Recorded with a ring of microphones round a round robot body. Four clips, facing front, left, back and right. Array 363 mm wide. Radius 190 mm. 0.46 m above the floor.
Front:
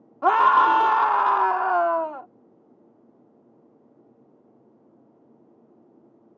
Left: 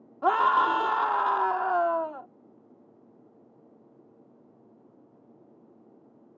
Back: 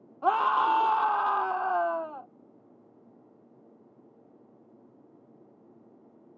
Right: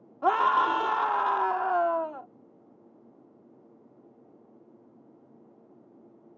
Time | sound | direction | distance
0.2 | a scream | 5° left | ?